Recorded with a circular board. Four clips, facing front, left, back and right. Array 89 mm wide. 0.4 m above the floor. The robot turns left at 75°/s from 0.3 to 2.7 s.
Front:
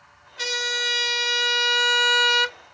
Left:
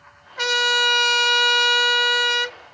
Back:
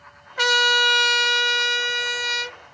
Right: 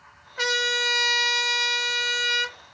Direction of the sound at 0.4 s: 175° left.